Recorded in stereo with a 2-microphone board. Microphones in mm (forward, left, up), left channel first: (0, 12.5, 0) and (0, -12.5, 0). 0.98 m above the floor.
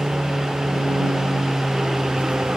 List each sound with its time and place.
0.0 s an aircraft: 70° right (ahead or behind); by 2.6 s 65° right (ahead or behind)